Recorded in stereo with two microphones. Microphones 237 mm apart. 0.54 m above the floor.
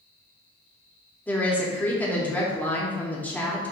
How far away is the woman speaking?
About 0.7 m.